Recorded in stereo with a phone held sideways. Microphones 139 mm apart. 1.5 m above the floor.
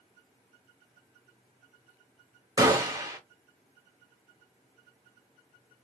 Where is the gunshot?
25° right (ahead or behind), 0.9 m.